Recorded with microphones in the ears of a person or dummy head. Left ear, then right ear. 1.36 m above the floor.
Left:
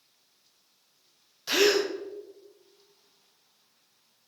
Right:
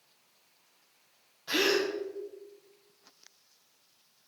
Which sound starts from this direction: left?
A gasp, at 1.5 s.